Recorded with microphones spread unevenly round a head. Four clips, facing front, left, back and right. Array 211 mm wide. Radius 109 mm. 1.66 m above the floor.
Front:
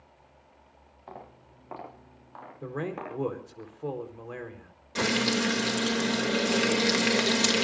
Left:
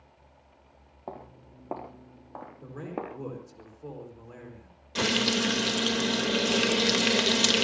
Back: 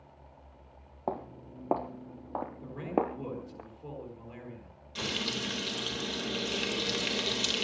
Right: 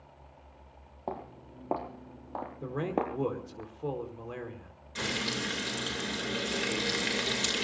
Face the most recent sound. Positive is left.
turn(degrees=45)